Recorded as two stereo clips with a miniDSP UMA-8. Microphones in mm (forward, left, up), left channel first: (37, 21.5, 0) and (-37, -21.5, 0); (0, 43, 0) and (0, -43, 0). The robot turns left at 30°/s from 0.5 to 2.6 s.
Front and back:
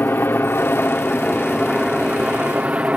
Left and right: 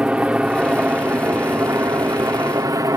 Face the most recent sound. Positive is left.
turn(degrees=-85)